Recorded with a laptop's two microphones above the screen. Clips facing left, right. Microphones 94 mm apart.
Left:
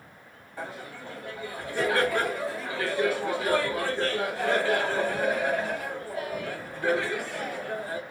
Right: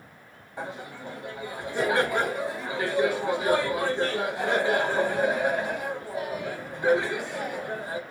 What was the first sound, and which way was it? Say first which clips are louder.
Laughter: right 2 dB; 20° right (ahead or behind).